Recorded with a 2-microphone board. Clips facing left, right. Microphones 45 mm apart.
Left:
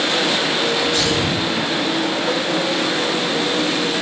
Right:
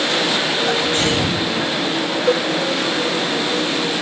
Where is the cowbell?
40° right (ahead or behind), 1.1 m.